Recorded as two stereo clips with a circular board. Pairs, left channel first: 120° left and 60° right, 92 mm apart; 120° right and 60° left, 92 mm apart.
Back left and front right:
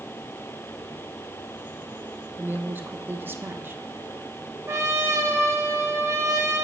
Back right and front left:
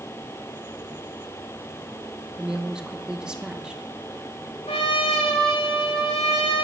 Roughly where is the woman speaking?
Ahead.